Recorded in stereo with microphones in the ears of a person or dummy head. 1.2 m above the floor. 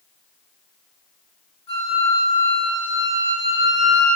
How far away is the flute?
About 5.5 m.